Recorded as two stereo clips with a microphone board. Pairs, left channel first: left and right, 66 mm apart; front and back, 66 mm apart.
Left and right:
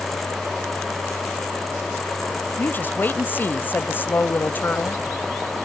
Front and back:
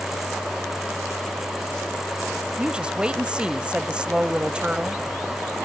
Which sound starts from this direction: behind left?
A woman speaking, at 2.6 s.